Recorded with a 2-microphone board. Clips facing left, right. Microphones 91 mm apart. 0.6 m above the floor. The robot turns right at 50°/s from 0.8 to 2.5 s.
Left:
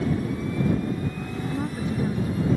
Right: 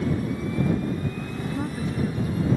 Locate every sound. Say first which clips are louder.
1.5 s a woman speaking: left 1 dB; 5° right; by 2.5 s 45° left